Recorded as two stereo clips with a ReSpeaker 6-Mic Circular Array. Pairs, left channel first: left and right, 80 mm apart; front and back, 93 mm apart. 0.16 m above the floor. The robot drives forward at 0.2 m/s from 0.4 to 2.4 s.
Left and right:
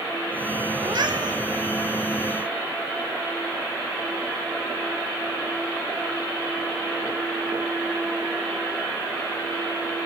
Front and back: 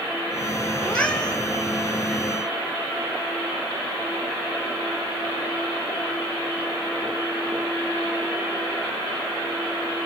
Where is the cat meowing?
75° right, 2 m; by 1.4 s 80° right, 2 m.